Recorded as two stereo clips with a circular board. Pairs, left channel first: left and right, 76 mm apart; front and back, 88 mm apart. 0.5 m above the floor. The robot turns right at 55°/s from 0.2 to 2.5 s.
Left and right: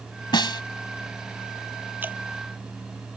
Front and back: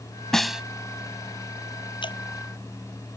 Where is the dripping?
25° right; by 2.2 s 15° right.